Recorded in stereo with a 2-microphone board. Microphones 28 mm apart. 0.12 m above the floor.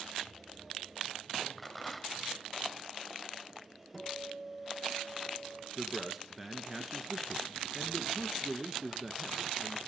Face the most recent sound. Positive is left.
turn(degrees=-5)  # may be behind; listen again after turning